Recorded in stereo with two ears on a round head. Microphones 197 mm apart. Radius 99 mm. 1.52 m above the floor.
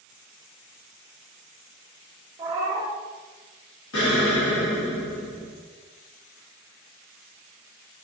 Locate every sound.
2.4 s a cat meowing: 15° right (ahead or behind), 0.7 m
3.9 s an explosion: 80° left, 1.2 m